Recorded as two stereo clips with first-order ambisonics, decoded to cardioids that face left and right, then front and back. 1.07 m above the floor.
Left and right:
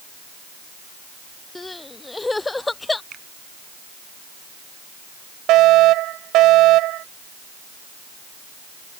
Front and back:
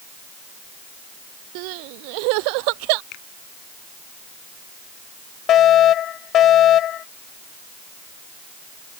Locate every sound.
1.6 s crying: 170° left
3.1 s a finger snap: 30° right
5.5 s a fire alarm: 50° right